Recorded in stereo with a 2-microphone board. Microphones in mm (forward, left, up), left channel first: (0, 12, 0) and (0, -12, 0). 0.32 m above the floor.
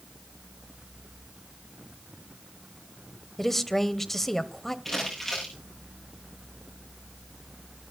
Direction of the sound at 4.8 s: 10° left (ahead or behind).